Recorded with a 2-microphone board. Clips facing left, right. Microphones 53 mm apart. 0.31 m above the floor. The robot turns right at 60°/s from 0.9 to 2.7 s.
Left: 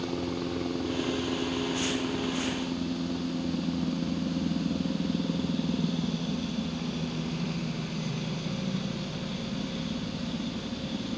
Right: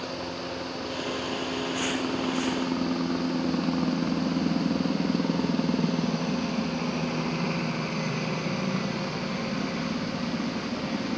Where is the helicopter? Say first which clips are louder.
Left 2 dB; 135° left; by 11.2 s 115° right.